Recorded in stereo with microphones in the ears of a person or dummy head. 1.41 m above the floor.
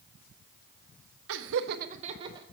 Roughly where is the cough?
I don't hear a cough.